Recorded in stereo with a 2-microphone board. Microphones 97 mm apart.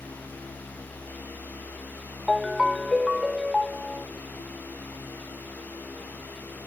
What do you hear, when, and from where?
2.3 s a ringtone: centre (ahead or behind)